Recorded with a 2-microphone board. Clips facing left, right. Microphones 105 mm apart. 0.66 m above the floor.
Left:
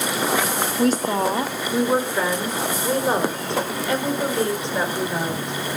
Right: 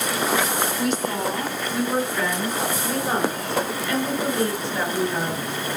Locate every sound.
0.8 s a woman speaking: 35° left (ahead or behind), 1.3 m; by 5.8 s 20° left (ahead or behind), 5.5 m